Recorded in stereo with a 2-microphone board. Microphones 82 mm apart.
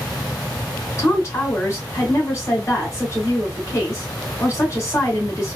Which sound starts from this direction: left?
A woman speaking, at 1.0 s.